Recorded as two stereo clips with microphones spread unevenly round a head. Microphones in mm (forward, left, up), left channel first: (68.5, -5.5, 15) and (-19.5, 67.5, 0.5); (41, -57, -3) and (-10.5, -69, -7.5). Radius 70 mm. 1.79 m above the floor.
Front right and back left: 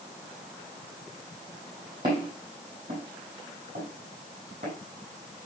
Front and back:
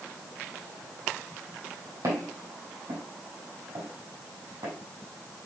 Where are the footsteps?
160° right, 5 m; by 4.7 s straight behind, 6 m.